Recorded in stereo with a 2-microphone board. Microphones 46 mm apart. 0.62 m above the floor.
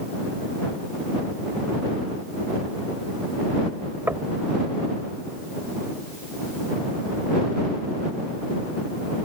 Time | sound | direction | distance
4.1 | knocking | 45° right (ahead or behind) | ?